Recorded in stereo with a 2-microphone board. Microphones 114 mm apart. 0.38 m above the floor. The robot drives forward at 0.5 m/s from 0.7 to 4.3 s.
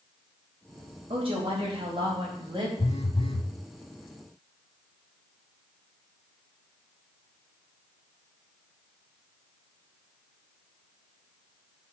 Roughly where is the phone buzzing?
Left.